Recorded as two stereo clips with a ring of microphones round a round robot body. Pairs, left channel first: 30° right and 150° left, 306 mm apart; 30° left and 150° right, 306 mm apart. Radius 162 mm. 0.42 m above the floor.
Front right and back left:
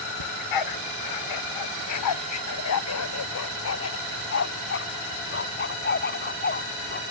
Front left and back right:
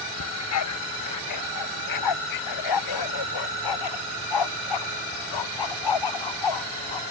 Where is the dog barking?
15° right; by 7.0 s 30° left.